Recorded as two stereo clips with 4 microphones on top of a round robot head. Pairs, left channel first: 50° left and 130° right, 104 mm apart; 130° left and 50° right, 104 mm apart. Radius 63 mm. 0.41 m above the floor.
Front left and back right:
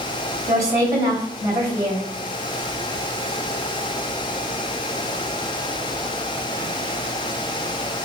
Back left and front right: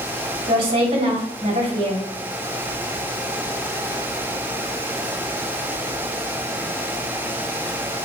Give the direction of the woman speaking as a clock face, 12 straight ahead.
3 o'clock.